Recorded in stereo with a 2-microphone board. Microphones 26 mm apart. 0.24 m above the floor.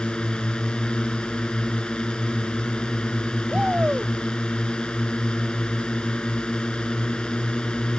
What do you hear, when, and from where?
0.0 s a drone: 40° left (ahead or behind)
3.5 s a shout: 50° right (ahead or behind)